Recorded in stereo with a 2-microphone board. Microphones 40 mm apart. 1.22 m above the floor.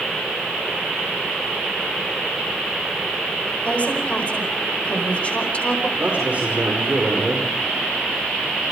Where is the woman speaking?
30° left (ahead or behind), 5 m.